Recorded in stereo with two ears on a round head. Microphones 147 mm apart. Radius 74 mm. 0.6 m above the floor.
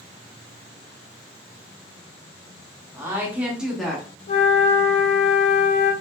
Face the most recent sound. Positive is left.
turn(degrees=40)  # may be behind; listen again after turning